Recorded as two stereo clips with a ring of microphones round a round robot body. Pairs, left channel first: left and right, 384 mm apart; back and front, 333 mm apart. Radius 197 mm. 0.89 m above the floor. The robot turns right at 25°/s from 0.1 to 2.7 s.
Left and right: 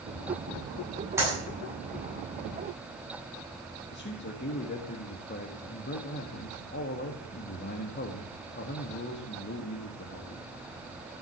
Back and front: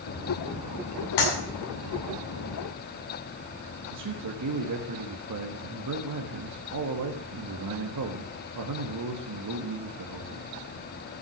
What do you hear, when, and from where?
1.2 s a clap: 175° right, 8.5 m; by 1.3 s 170° right, 8.5 m
3.9 s a man speaking: 30° left, 1.7 m